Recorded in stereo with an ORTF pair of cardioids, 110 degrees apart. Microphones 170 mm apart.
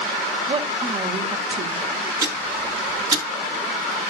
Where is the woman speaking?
30° right, 2.5 m.